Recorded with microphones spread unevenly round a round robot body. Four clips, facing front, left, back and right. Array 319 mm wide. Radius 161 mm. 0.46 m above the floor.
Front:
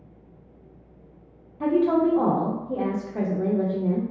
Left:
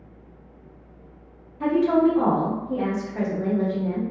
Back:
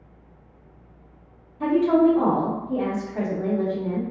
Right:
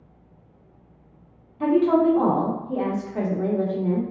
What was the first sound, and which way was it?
A woman speaking, 45° right.